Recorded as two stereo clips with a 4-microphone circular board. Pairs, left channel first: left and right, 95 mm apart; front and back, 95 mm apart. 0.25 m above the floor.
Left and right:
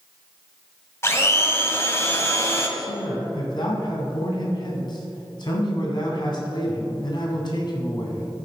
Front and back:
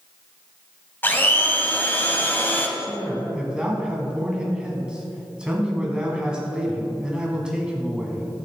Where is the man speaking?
100° left, 1.7 m.